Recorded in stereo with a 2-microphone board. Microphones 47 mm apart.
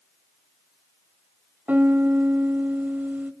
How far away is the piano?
About 1.3 m.